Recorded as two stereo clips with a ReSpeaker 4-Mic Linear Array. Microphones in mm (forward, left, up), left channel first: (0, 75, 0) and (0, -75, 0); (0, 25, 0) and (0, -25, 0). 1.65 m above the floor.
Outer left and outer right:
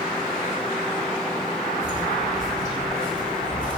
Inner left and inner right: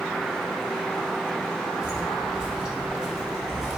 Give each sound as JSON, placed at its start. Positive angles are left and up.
{"t": 1.8, "sound": "footsteps", "side_deg": -25, "distance_m": 3.5}